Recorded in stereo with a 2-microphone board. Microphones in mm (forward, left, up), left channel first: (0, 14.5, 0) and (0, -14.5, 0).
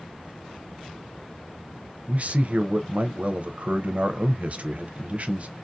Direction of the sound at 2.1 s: 50° right (ahead or behind).